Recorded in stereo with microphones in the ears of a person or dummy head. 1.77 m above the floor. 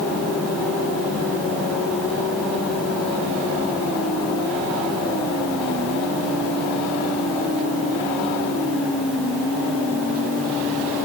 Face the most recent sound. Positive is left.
No sound to turn to.